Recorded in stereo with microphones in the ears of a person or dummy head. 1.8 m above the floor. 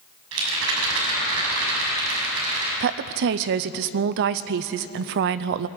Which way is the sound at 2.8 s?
50° right (ahead or behind).